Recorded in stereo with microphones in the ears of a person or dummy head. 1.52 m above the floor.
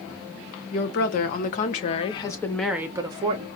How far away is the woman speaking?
About 1.4 m.